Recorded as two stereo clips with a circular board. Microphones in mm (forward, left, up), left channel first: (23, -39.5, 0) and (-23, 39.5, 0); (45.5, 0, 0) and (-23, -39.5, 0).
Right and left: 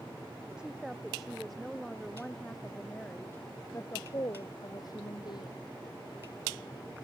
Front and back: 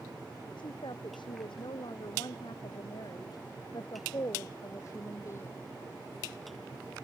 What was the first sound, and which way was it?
A woman speaking, 40° left.